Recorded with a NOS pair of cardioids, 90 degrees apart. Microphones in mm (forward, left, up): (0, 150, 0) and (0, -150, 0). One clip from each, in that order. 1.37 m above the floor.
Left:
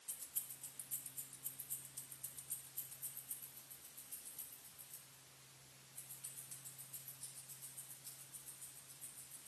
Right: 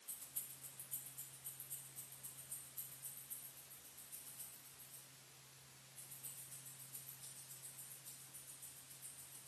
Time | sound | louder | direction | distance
0.1 | keys jangling | left 3 dB | 30° left | 1.5 m